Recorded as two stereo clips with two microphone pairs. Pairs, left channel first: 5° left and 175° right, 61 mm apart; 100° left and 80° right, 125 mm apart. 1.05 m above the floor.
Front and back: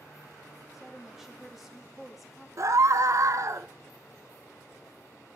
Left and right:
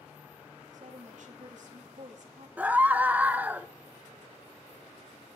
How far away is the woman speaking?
About 2.5 m.